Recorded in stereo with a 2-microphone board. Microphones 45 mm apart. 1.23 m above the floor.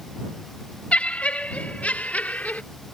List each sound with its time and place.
0.9 s laughter: 30° left (ahead or behind); by 2.6 s 35° left (ahead or behind)